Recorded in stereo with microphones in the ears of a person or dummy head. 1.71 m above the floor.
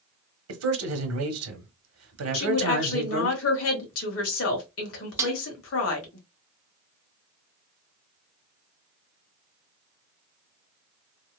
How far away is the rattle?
I don't hear a rattle.